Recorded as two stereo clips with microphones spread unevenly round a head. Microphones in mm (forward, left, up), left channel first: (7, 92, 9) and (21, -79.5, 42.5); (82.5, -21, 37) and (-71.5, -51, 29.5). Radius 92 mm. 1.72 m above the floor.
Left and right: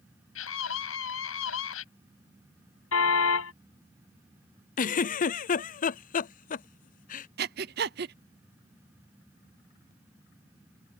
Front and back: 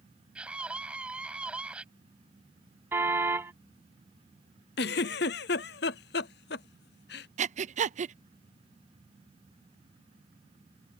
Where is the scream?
105° left.